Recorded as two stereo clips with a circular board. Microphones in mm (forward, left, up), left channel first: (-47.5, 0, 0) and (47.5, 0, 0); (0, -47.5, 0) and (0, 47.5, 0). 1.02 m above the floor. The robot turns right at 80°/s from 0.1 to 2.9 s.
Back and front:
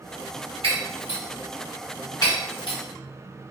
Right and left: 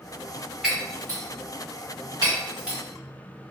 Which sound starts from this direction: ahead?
Breaking glass, at 0.6 s.